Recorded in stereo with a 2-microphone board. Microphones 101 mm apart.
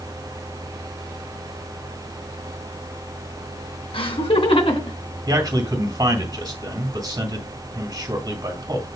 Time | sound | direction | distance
3.9 | laughter | 65° left (ahead or behind) | 3 m
5.3 | a man speaking | 45° right (ahead or behind) | 2.5 m